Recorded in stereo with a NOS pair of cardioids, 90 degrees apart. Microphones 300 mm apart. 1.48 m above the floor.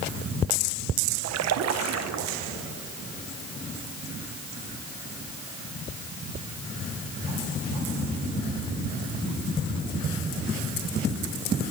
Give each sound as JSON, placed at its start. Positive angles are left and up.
{"t": 1.2, "sound": "a splash", "azimuth_deg": -65, "distance_m": 1.2}